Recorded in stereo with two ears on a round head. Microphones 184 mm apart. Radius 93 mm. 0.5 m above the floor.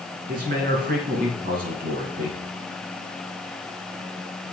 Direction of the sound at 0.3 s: 45° right (ahead or behind).